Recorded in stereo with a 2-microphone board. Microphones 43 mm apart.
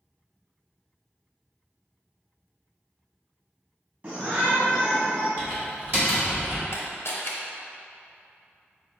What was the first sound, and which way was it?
A shout, 30° right (ahead or behind).